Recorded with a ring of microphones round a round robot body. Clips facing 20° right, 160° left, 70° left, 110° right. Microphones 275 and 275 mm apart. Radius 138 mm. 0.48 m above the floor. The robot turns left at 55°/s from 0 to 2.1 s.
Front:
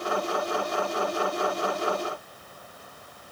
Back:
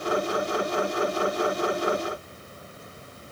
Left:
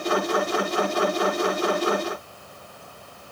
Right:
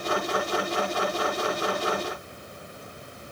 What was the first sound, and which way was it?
Only background noise.